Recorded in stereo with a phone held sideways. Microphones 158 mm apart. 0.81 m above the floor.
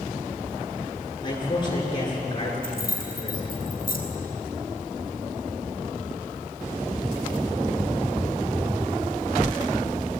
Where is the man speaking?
30° left (ahead or behind), 9.5 m.